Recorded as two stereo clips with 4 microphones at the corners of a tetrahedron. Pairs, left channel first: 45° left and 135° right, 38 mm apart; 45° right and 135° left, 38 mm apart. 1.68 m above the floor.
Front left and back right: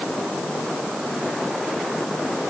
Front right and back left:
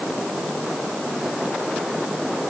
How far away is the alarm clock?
No alarm clock in this recording.